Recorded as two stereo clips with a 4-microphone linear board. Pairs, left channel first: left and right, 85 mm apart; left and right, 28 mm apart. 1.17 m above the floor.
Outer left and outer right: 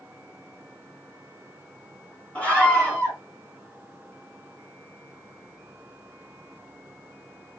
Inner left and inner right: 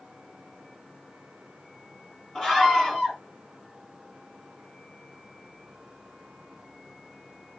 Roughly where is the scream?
Centre.